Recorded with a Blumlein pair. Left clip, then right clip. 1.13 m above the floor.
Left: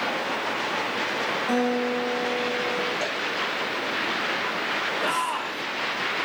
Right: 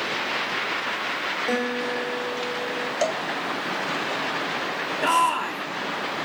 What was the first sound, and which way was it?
A guitar, 70° right.